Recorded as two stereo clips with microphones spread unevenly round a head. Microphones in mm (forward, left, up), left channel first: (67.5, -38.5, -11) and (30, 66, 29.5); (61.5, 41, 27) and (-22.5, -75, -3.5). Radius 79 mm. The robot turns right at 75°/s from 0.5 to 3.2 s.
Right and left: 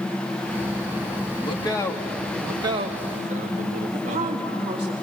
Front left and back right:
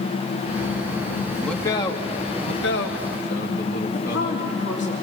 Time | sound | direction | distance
1.4 | a man speaking | 40° right | 2.5 m
3.9 | a woman speaking | 70° left | 3.5 m